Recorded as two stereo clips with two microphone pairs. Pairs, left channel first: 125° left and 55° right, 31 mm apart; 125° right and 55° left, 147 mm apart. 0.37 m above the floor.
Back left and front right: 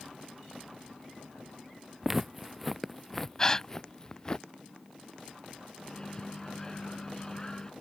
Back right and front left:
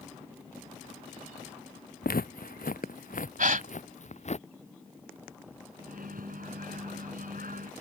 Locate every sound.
2.0 s footsteps: 130° right; by 4.4 s 165° right
3.4 s a gasp: 60° left
5.8 s a microwave: 60° left